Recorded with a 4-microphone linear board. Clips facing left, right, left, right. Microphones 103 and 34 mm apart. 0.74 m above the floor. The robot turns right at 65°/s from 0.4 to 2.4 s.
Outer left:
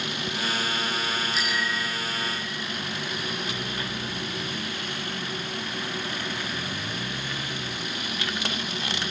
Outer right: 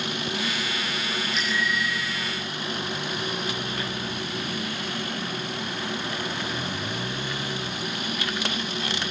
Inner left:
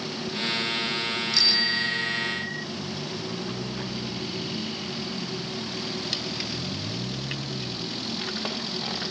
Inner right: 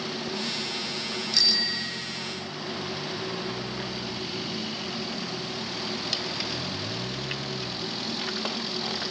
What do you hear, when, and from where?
1.3 s a bicycle bell: straight ahead; by 2.6 s 70° left